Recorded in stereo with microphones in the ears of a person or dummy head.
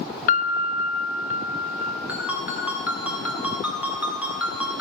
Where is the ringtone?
10° right (ahead or behind), 1.8 m.